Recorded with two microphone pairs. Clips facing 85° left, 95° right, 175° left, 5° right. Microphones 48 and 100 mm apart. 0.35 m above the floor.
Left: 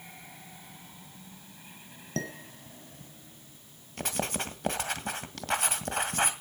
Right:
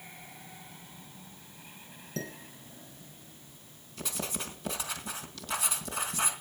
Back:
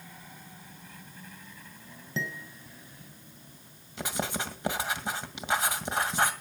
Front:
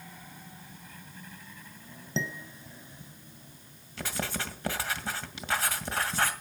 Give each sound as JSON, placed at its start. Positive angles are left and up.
{"t": 2.2, "sound": "dishes clattering", "azimuth_deg": 60, "distance_m": 2.0}
{"t": 4.0, "sound": "writing", "azimuth_deg": 105, "distance_m": 1.9}